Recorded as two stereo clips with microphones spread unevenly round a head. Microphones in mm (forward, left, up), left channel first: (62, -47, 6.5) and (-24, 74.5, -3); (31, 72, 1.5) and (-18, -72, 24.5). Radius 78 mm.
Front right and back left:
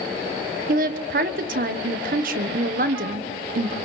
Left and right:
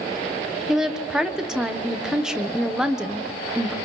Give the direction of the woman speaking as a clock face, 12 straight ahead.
6 o'clock.